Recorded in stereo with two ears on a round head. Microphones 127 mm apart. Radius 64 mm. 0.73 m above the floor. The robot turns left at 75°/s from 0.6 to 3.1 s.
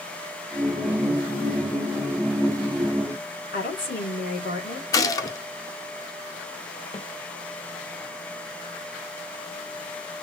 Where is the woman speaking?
65° left (ahead or behind), 2.5 m.